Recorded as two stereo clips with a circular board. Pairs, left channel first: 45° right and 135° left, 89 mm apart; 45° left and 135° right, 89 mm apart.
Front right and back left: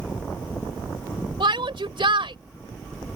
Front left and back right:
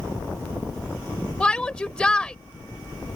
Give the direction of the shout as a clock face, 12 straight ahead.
8 o'clock.